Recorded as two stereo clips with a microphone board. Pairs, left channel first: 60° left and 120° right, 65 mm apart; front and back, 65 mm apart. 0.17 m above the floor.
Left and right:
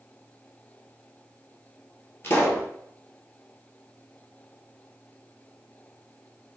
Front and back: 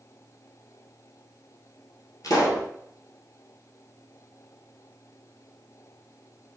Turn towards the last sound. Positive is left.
turn(degrees=10)